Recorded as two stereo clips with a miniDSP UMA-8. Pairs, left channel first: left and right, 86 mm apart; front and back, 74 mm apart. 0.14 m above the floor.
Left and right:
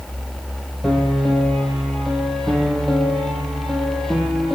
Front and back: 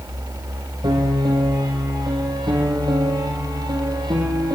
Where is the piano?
175° left, 5 m.